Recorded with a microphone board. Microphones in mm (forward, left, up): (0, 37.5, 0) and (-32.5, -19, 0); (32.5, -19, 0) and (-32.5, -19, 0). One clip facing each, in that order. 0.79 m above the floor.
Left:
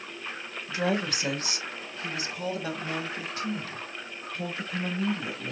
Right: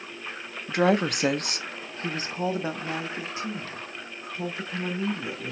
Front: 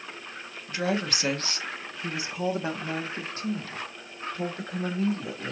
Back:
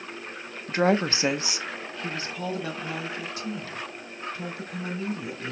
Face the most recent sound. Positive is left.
turn(degrees=-35)